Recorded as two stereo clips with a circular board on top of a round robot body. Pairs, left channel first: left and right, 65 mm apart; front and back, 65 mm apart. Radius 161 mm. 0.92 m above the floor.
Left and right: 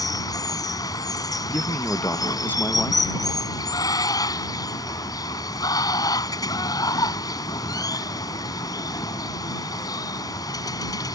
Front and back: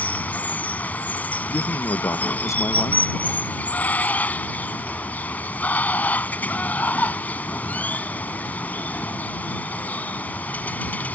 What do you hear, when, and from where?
0.0 s running water: 65° left
1.5 s a man speaking: 35° left